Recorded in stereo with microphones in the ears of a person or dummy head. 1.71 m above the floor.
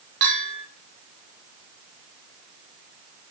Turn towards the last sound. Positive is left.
turn(degrees=-55)  # may be behind; listen again after turning